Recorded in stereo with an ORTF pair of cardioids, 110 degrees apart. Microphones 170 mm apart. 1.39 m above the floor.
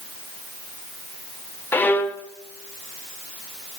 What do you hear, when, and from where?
1.7 s a violin: 10° left, 0.7 m